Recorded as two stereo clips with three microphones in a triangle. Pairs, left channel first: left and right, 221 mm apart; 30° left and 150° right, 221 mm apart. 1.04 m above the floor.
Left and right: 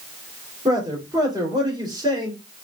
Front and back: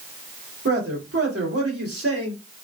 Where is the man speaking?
160° right, 3 m.